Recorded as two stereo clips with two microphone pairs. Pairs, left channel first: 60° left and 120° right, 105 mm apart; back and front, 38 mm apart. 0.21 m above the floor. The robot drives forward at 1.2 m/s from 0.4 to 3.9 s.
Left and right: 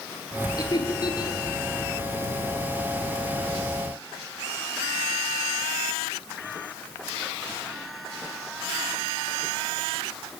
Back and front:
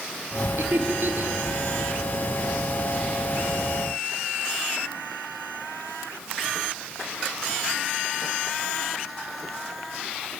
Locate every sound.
0.6 s laughter: 10° left, 4 m; by 1.4 s 15° left, 3 m